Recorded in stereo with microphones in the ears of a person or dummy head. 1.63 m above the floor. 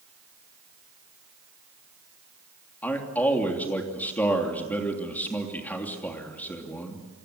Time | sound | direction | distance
2.8 | a man speaking | 15° left (ahead or behind) | 3 m